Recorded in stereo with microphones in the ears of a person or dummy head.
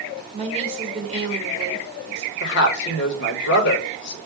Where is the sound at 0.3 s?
35° right (ahead or behind), 2 m.